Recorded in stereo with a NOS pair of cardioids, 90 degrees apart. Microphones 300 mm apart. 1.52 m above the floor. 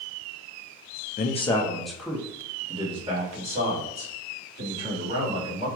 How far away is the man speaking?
About 0.7 m.